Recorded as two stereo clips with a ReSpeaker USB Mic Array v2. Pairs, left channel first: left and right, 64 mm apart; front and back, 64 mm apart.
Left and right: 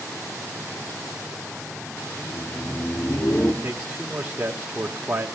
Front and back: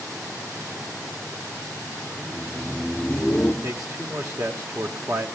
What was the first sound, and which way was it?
Laughter, 125° left.